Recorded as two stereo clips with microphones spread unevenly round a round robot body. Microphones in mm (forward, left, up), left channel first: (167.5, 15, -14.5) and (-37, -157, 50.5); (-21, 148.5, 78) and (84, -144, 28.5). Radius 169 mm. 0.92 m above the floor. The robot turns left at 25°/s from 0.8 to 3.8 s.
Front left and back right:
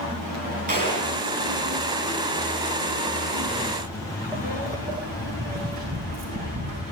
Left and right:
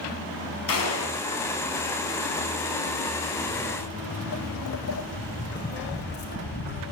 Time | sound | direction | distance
0.7 | a gunshot | 155° left | 2.5 m
3.5 | footsteps | 135° left | 1.4 m